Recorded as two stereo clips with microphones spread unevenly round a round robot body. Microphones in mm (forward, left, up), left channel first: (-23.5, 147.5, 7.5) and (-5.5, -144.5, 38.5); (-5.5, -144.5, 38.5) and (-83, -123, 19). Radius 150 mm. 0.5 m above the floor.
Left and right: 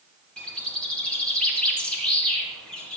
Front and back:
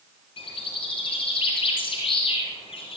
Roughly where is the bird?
Ahead.